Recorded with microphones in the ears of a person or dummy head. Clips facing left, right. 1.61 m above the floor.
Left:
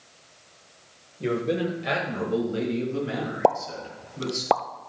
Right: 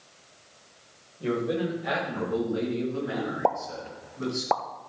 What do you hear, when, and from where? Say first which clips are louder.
1.2 s a man speaking: left 2 dB; 35° left (ahead or behind), 1.4 m; by 4.4 s 50° left (ahead or behind), 3.5 m
3.4 s a pop: left 8 dB; 55° left (ahead or behind), 0.6 m